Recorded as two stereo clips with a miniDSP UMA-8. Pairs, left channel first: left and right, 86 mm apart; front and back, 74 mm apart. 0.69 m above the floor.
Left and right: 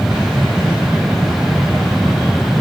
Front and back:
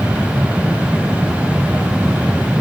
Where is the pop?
I don't hear a pop.